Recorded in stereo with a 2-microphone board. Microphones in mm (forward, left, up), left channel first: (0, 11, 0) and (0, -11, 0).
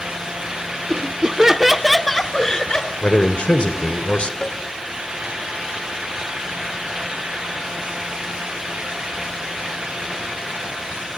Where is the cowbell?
30° left (ahead or behind), 1.0 m.